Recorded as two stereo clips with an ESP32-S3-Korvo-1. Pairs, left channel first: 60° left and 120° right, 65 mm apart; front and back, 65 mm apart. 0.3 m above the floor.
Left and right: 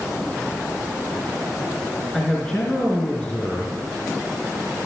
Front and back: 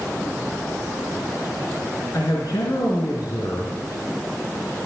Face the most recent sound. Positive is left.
turn(degrees=-15)